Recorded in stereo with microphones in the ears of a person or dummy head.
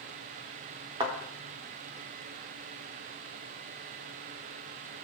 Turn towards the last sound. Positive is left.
turn(degrees=-20)  # may be behind; listen again after turning